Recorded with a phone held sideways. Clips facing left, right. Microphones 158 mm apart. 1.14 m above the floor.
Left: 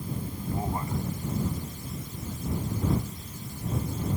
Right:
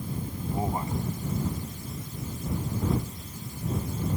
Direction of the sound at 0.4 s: 20° right (ahead or behind).